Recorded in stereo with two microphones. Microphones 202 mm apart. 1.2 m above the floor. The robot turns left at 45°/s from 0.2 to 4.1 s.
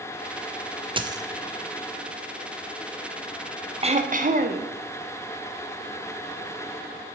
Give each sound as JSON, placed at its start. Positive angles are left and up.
{"t": 1.0, "sound": "a dropped coin", "side_deg": -25, "distance_m": 0.6}
{"t": 3.8, "sound": "throat clearing", "side_deg": -30, "distance_m": 0.8}